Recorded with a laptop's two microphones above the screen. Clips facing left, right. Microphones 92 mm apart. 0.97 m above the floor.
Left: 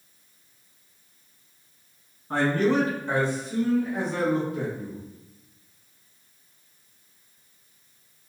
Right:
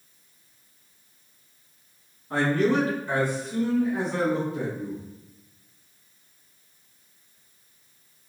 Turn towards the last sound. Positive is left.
turn(degrees=-35)  # may be behind; listen again after turning